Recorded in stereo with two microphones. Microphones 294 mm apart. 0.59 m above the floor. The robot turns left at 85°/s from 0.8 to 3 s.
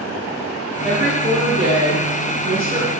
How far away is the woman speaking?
About 1.3 m.